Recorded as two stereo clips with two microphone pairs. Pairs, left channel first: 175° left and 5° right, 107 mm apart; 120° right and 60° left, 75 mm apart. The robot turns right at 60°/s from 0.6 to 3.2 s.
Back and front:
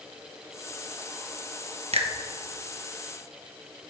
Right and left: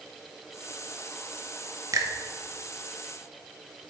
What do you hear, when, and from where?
1.9 s a finger snap: 15° left, 0.8 m; by 2.1 s 30° left, 0.8 m